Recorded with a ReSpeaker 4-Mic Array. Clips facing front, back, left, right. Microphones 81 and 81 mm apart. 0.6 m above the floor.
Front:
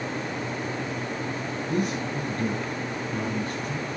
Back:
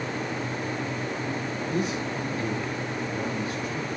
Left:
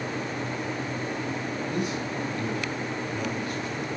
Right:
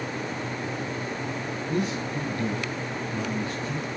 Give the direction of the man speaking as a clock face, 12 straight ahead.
1 o'clock.